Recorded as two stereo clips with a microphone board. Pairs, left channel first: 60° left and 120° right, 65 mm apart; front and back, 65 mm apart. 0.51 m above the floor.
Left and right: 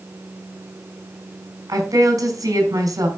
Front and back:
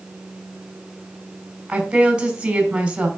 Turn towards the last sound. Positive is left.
turn(degrees=-105)